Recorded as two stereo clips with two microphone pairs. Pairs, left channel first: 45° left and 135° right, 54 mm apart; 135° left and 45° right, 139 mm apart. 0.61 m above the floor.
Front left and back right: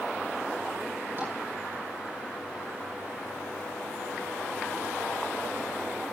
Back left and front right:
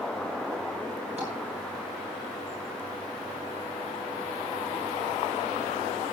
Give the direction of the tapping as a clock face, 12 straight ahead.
3 o'clock.